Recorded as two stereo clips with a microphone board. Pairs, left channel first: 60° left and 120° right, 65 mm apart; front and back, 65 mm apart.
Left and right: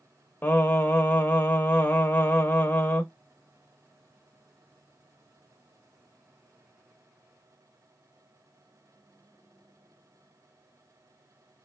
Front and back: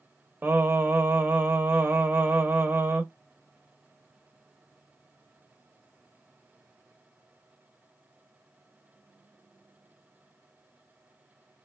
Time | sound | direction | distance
0.4 | singing | 120° left | 0.6 m